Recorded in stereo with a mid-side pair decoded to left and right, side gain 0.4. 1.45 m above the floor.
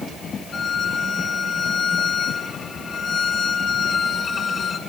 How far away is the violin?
About 5.5 m.